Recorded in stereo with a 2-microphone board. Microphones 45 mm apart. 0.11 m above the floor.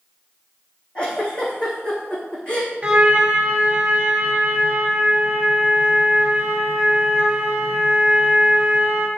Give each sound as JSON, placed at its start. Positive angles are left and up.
{"t": 0.9, "sound": "a giggle", "side_deg": 25, "distance_m": 3.0}
{"t": 2.8, "sound": "a trumpet", "side_deg": -25, "distance_m": 1.5}